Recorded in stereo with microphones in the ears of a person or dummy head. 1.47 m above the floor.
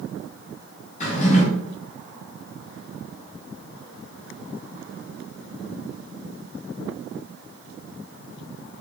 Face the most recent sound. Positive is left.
turn(degrees=35)  # may be behind; listen again after turning